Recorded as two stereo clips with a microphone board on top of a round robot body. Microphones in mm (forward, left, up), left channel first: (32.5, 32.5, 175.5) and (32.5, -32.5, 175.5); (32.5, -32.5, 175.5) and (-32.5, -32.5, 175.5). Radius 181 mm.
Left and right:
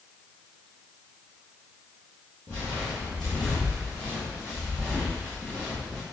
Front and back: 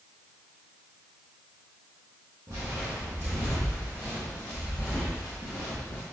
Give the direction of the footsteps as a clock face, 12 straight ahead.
7 o'clock.